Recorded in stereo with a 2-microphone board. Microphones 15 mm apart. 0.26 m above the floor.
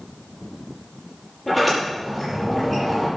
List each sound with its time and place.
1.5 s a sliding door: 5° left (ahead or behind), 6 m